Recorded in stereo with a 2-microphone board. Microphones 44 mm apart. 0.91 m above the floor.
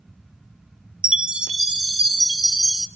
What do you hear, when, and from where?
1.0 s a chime: 20° right (ahead or behind), 1.2 m